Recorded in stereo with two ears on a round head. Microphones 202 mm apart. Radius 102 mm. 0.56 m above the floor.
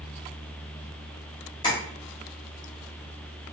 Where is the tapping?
20° left (ahead or behind), 0.9 m.